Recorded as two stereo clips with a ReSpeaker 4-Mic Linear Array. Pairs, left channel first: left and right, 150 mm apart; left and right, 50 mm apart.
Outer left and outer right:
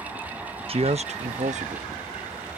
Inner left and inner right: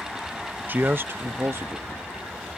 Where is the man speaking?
40° right (ahead or behind); by 1.9 s 50° right (ahead or behind).